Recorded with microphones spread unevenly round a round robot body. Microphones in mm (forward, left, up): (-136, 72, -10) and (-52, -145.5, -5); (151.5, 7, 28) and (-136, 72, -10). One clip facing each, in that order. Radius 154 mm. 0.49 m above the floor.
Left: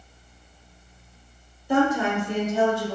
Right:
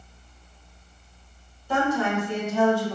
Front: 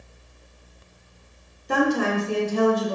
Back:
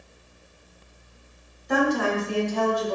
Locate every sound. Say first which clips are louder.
1.7 s a woman speaking: left 3 dB, front 1 dB; 40° left, 1.1 m; by 3.0 s 60° left, 1.7 m